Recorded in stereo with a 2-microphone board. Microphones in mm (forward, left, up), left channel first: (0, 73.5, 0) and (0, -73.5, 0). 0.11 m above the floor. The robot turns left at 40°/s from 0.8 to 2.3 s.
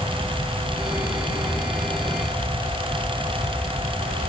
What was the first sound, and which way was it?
Only background noise.